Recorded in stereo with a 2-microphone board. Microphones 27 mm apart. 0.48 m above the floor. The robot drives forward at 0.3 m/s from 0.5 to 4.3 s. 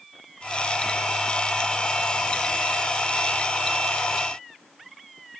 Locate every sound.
Only background noise.